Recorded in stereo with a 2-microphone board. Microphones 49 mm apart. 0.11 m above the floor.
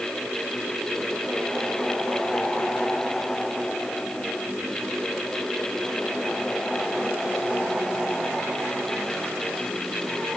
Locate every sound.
Only background noise.